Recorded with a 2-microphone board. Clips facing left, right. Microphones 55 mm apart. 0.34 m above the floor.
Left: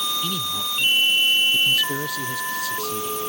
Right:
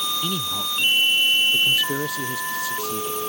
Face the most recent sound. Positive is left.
turn(degrees=-15)  # may be behind; listen again after turning